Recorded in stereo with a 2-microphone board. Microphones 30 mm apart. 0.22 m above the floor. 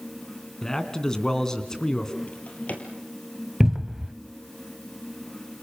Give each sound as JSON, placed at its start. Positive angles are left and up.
{"t": 0.6, "sound": "a man speaking", "side_deg": 20, "distance_m": 2.5}
{"t": 2.3, "sound": "a drawer", "side_deg": 55, "distance_m": 3.5}
{"t": 3.6, "sound": "a cupboard door", "side_deg": -20, "distance_m": 0.7}